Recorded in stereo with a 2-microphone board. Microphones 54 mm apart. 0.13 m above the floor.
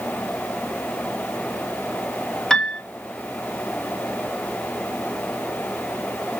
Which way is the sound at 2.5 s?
10° left (ahead or behind).